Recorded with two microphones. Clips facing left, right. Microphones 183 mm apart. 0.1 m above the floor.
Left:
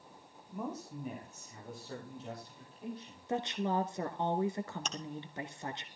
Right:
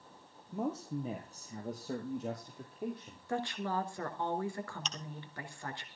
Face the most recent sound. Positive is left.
turn(degrees=50)  # may be behind; listen again after turning